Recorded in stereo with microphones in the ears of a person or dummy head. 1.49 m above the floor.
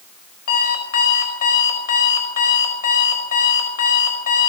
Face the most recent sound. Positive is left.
turn(degrees=45)  # may be behind; listen again after turning